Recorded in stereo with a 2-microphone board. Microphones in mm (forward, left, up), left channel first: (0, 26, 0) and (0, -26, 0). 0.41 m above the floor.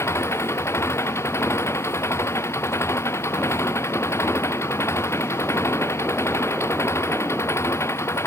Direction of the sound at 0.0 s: 60° left (ahead or behind).